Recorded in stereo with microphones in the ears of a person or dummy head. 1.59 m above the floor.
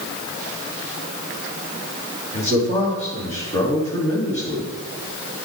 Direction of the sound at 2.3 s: 35° left (ahead or behind).